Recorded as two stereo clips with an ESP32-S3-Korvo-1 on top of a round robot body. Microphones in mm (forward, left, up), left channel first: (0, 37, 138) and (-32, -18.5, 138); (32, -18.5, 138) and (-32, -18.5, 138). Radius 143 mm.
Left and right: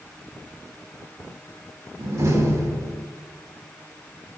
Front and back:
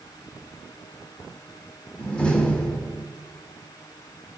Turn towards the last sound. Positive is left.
turn(degrees=-75)